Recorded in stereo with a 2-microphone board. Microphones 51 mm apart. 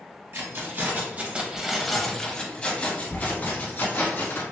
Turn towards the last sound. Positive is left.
turn(degrees=50)  # may be behind; listen again after turning